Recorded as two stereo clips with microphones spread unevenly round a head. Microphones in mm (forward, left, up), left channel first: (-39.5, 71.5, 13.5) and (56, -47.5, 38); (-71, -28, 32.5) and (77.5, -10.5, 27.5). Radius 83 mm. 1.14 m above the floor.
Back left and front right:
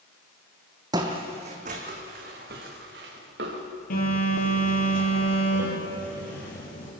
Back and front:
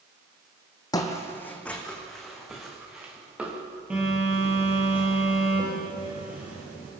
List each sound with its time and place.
0.9 s footsteps: 110° right, 2 m; by 3.6 s 75° right, 5 m
3.9 s a phone buzzing: 90° left, 6 m